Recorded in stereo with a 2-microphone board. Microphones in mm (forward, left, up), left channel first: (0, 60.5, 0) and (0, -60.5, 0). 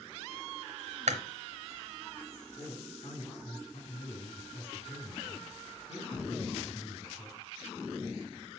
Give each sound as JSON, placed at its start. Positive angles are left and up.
{"t": 1.1, "sound": "chewing", "side_deg": -70, "distance_m": 1.1}
{"t": 2.6, "sound": "a man speaking", "side_deg": 55, "distance_m": 5.5}